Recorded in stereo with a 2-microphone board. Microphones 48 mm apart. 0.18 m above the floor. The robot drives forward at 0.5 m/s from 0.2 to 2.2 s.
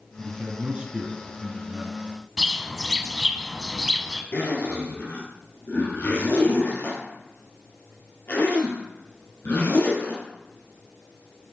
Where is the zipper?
50° left (ahead or behind), 3 m.